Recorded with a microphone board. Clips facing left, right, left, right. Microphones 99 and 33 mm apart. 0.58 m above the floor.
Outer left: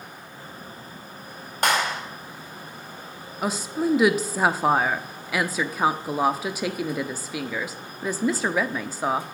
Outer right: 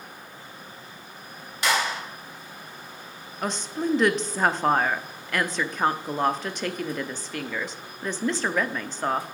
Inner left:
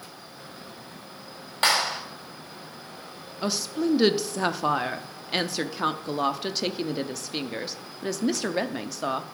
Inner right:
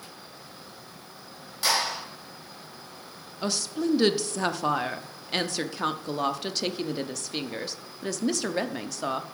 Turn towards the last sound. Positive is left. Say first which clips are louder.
# outer left 3 dB, inner left 1 dB
turn(degrees=5)  # may be behind; listen again after turning